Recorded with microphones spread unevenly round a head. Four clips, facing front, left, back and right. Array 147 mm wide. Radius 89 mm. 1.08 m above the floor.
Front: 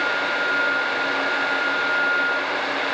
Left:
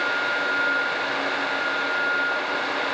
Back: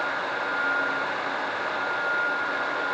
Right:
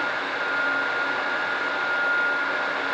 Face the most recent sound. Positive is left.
No sound to turn to.